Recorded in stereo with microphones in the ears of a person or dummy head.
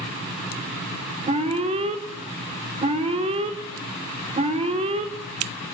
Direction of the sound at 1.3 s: 30° right (ahead or behind).